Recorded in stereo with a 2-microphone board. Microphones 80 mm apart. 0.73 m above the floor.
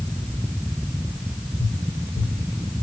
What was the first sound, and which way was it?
Tapping, 60° left (ahead or behind).